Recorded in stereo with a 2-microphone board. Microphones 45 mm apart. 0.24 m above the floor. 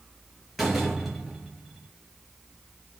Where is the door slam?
Centre (ahead or behind), 3.5 m.